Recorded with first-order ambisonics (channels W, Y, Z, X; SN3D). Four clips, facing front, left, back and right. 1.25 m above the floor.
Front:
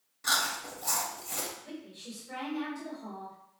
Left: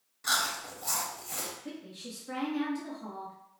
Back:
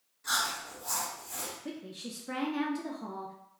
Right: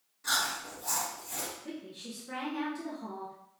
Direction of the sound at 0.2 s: 25° left.